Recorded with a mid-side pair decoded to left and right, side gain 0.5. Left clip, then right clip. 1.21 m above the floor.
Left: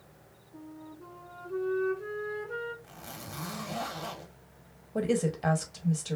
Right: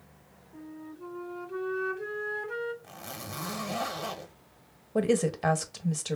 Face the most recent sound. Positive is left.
turn(degrees=-30)